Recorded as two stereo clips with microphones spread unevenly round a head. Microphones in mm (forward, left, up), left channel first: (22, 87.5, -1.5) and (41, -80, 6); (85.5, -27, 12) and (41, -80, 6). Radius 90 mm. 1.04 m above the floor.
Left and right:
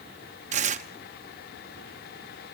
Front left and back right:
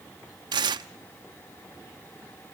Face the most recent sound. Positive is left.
turn(degrees=-135)